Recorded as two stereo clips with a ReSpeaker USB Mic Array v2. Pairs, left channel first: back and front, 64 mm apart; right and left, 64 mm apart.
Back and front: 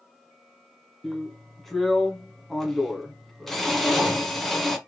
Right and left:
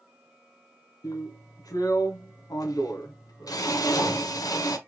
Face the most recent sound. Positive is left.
turn(degrees=-95)